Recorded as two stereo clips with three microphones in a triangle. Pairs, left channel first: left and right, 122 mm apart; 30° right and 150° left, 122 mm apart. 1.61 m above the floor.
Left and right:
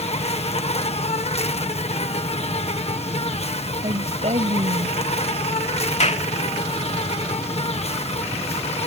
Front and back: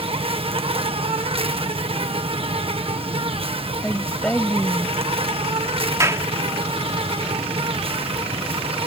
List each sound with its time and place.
0.0 s an insect: 115° left
3.8 s a woman speaking: 110° right
6.0 s a clap: 85° left